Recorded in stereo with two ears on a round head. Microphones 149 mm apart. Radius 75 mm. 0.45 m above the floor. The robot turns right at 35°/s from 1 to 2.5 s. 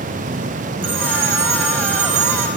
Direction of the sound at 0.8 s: 85° right.